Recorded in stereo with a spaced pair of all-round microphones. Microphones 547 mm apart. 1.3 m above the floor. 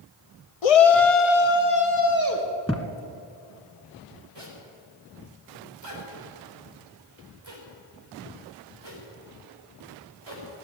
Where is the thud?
10° left (ahead or behind), 1.3 m.